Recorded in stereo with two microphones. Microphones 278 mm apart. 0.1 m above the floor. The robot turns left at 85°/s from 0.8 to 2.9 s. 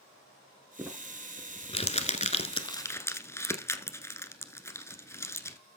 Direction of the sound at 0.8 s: 10° right (ahead or behind).